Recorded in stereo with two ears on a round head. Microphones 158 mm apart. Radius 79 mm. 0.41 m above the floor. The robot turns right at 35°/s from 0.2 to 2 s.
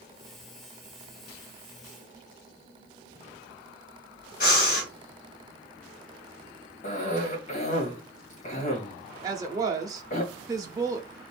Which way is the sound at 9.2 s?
20° right (ahead or behind).